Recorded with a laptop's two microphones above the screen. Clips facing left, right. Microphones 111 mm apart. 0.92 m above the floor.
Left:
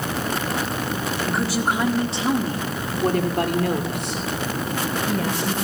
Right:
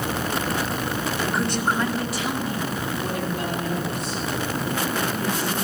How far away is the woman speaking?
About 1.9 m.